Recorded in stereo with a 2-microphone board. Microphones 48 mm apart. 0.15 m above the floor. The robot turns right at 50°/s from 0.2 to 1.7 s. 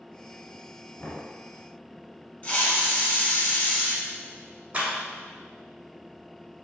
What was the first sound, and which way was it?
Knocking, 35° left (ahead or behind).